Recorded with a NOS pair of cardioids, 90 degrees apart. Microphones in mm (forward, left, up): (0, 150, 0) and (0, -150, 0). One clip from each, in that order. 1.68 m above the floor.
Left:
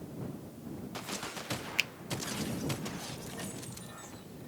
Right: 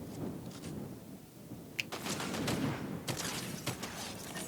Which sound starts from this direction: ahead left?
A finger snap, at 1.8 s.